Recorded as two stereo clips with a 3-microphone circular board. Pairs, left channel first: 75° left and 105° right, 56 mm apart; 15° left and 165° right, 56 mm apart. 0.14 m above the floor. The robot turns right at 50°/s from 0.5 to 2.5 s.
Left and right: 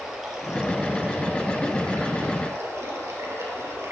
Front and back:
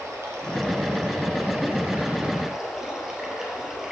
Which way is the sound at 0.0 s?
175° left.